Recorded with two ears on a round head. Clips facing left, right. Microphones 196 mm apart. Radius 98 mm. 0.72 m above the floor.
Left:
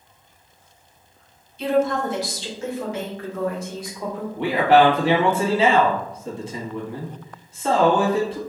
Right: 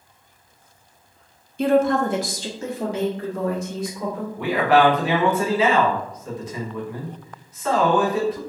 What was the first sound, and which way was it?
A woman speaking, 40° right (ahead or behind).